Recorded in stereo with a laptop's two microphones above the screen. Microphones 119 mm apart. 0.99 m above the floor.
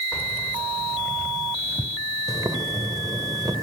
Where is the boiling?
30° right (ahead or behind), 3 m.